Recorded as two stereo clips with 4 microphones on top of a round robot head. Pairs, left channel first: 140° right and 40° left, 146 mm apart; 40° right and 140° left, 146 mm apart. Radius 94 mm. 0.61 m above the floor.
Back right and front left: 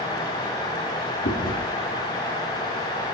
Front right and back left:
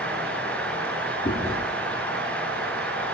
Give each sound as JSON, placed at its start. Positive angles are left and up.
{"t": 1.2, "sound": "chewing", "azimuth_deg": -105, "distance_m": 3.0}